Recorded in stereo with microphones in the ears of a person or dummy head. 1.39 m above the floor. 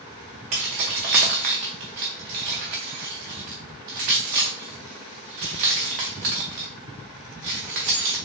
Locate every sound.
0.5 s keys jangling: 20° right (ahead or behind), 0.6 m